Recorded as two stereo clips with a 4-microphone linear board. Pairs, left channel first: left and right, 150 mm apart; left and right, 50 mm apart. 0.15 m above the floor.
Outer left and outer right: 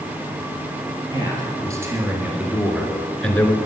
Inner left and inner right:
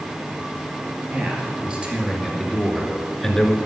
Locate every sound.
1.1 s a man speaking: 25° right (ahead or behind), 3 m; by 3.6 s 15° left (ahead or behind), 1.9 m